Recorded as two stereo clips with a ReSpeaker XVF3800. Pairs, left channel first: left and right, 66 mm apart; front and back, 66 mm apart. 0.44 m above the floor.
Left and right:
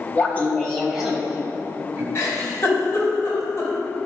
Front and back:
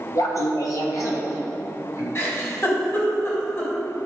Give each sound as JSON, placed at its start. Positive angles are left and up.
{"t": 0.1, "sound": "laughter", "azimuth_deg": 30, "distance_m": 2.5}
{"t": 2.1, "sound": "a giggle", "azimuth_deg": 45, "distance_m": 3.5}